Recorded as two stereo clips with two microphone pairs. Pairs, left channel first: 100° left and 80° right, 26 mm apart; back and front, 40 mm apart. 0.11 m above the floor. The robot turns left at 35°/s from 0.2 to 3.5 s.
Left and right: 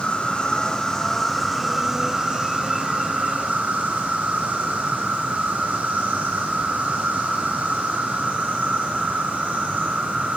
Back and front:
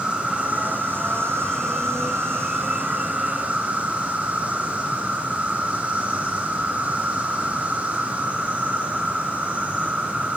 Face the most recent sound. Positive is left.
turn(degrees=-60)